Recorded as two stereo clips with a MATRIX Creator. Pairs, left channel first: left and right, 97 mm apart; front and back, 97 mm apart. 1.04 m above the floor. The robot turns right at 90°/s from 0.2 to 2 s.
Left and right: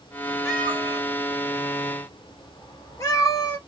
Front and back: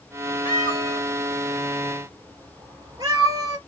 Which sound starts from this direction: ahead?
A cat meowing, at 0.5 s.